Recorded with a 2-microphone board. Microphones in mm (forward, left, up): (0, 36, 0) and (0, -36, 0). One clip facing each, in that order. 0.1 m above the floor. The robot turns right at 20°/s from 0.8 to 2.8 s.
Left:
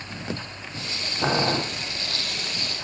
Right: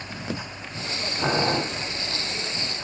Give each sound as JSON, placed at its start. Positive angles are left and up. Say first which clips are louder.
{"t": 1.2, "sound": "boiling", "louder": "even", "side_deg": 10, "distance_m": 3.0}